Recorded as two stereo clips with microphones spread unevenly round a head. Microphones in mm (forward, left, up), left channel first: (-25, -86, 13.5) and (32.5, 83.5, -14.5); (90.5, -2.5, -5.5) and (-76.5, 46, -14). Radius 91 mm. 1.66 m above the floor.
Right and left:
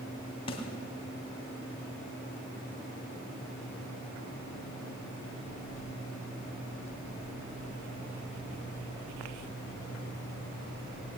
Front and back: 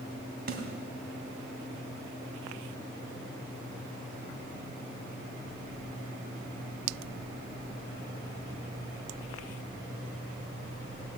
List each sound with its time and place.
0.5 s a snare drum: 160° right, 3 m